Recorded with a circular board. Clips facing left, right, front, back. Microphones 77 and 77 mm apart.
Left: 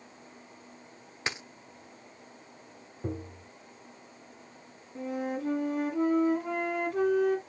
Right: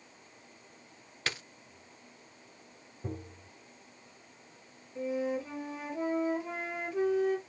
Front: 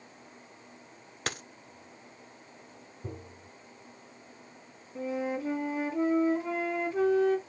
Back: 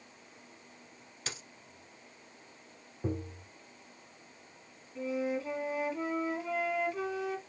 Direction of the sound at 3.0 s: 140° left.